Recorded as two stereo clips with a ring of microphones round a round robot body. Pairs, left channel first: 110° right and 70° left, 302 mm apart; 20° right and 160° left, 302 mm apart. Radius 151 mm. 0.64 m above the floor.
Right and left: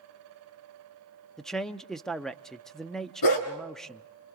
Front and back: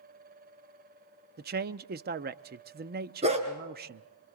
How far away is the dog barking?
About 3.5 m.